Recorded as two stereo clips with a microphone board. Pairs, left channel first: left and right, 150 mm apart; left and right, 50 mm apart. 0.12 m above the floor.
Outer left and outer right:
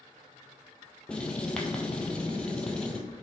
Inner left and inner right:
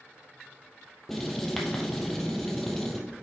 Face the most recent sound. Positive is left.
turn(degrees=5)  # may be behind; listen again after turning